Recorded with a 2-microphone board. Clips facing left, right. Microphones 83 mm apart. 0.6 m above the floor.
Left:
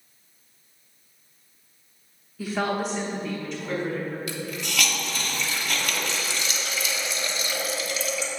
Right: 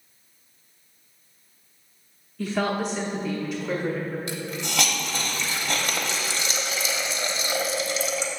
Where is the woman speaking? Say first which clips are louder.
Right 1 dB; 5° left (ahead or behind), 0.9 m; by 4.2 s 10° right (ahead or behind), 1.8 m.